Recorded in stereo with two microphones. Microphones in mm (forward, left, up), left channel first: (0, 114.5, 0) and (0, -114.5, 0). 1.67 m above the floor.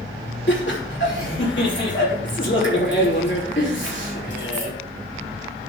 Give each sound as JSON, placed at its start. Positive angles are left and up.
{"t": 0.5, "sound": "laughter", "side_deg": 55, "distance_m": 3.5}